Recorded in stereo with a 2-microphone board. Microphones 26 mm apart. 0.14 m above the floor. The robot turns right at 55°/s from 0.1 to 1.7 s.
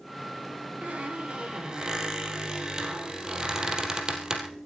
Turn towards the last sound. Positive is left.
turn(degrees=-30)